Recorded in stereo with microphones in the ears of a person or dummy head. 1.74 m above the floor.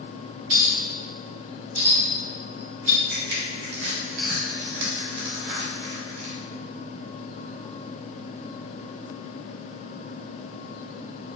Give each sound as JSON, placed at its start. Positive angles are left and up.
{"t": 0.5, "sound": "a clink", "side_deg": -50, "distance_m": 1.6}
{"t": 3.1, "sound": "crushing", "side_deg": -55, "distance_m": 1.0}